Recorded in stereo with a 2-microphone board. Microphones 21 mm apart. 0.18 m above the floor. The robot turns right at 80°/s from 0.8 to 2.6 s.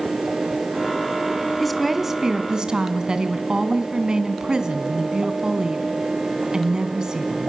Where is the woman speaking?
170° left, 1.9 m; by 7.5 s 110° right, 1.9 m.